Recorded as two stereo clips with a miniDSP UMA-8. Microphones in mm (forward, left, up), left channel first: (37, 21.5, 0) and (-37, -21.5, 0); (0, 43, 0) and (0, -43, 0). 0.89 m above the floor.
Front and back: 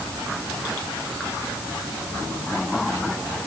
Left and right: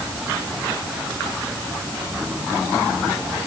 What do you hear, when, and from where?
Only background noise.